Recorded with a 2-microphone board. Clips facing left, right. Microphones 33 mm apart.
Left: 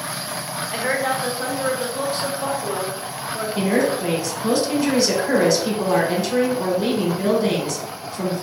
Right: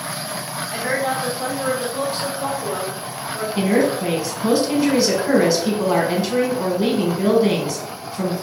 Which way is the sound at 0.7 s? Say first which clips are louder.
Even; 35° left (ahead or behind).